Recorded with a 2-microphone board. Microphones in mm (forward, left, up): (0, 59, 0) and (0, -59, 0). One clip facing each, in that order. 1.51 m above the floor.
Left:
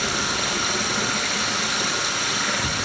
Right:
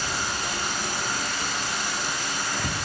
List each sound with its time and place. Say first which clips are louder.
0.0 s running water: left 4 dB; 75° left (ahead or behind), 6 m